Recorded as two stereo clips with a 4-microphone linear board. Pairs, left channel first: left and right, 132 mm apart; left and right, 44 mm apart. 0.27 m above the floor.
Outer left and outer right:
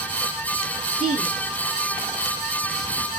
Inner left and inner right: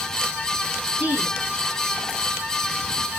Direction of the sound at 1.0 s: 40° right (ahead or behind).